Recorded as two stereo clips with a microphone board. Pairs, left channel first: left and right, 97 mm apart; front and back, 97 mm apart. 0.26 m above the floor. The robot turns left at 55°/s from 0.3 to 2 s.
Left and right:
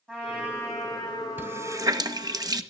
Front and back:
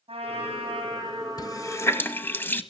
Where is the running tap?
25° right, 0.9 m; by 2.6 s 60° right, 0.9 m.